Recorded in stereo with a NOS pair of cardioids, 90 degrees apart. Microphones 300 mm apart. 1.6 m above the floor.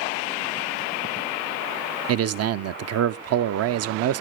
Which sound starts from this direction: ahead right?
A man speaking, at 2.1 s.